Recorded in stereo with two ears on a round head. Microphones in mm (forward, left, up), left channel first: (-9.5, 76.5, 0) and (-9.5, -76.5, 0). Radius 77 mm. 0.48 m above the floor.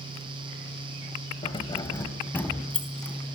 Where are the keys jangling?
30° left (ahead or behind), 1.9 m; by 3.1 s 5° left (ahead or behind), 3.5 m.